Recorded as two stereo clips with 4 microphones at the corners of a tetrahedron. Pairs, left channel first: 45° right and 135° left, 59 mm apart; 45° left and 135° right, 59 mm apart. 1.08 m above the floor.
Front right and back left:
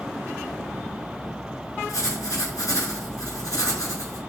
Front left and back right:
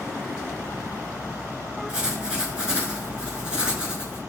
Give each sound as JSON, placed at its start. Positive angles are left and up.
{"t": 1.9, "sound": "writing", "azimuth_deg": -65, "distance_m": 6.5}